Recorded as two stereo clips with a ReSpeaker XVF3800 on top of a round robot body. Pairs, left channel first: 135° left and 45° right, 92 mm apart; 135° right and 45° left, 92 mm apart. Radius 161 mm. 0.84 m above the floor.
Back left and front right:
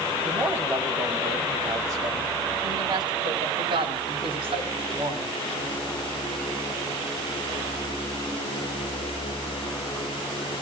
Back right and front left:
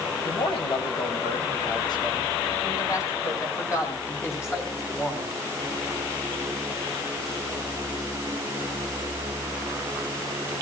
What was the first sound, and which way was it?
A man speaking, 115° right.